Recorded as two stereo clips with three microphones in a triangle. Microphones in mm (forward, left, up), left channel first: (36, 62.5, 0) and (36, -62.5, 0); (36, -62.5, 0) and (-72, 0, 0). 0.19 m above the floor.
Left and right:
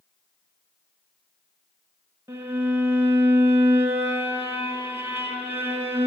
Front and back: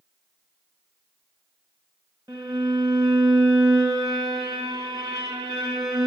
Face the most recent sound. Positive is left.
turn(degrees=-155)